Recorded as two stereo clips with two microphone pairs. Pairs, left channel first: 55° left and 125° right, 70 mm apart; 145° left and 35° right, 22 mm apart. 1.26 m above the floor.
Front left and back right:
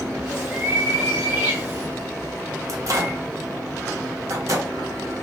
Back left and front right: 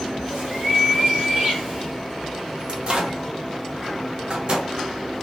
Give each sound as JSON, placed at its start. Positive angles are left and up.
{"t": 0.3, "sound": "a bird", "azimuth_deg": -55, "distance_m": 1.5}
{"t": 2.7, "sound": "a microwave", "azimuth_deg": -80, "distance_m": 0.7}